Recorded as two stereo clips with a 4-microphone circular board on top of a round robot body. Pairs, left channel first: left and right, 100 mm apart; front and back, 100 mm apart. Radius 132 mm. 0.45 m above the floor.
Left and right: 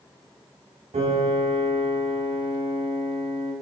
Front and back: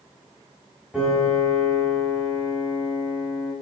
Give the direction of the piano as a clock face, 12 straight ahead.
3 o'clock.